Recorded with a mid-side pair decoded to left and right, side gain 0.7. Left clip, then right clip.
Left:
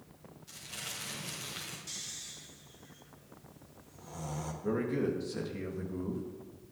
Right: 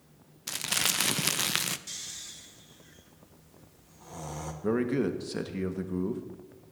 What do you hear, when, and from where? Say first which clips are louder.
0.5 s crumpling: right 14 dB; 70° right, 0.5 m
1.9 s snoring: right 2 dB; 15° right, 1.2 m
4.6 s a man speaking: right 4 dB; 35° right, 1.3 m